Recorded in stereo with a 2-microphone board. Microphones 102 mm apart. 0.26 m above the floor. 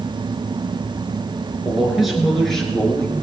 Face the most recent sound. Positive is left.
turn(degrees=10)  # may be behind; listen again after turning